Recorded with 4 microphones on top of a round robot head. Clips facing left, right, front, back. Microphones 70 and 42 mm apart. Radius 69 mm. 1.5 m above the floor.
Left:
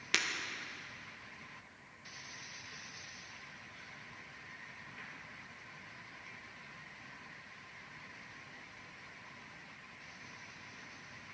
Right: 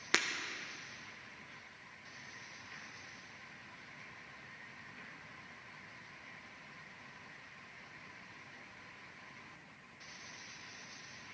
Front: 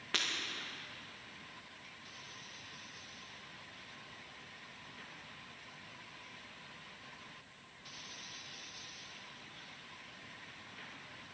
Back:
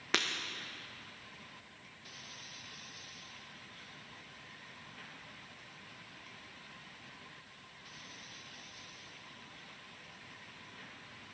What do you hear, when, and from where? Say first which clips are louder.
0.1 s breaking glass: right 2 dB, back 3 dB; 135° right, 0.8 m